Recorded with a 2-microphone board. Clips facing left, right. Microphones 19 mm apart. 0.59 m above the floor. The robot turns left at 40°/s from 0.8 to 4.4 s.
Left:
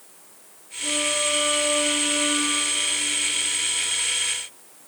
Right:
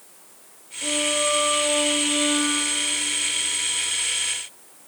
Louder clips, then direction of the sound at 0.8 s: Right 1 dB; 65° right.